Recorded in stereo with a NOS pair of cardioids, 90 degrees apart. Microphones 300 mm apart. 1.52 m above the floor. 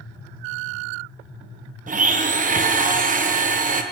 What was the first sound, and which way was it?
A blender, 30° right.